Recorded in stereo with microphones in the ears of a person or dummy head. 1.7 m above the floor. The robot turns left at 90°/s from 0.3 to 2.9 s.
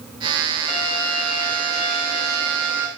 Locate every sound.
0.7 s a violin: 175° left, 1.6 m; by 2.9 s 20° right, 1.6 m